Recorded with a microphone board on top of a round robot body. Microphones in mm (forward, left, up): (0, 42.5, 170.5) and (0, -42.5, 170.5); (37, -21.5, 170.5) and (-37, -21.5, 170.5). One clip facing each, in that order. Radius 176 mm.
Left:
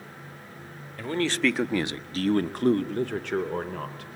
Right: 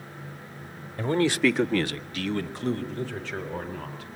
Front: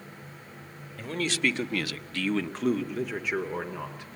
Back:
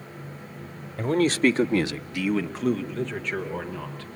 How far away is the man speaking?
About 1.5 m.